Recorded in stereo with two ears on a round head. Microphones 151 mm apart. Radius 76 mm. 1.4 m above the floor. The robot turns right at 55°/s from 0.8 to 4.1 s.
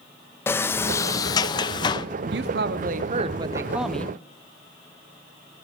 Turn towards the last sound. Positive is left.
turn(degrees=10)